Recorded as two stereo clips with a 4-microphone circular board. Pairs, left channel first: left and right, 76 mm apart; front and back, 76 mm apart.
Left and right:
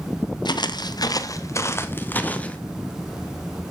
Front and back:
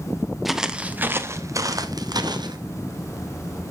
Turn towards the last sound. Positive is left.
turn(degrees=160)